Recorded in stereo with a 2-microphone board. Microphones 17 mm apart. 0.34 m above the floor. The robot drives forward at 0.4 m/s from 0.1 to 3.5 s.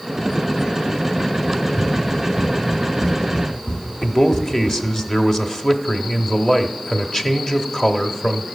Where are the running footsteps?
30° left (ahead or behind), 1.4 m; by 5.0 s 75° left (ahead or behind), 1.8 m.